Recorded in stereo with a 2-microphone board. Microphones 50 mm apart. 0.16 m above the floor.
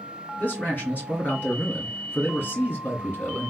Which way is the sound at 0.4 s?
35° left (ahead or behind).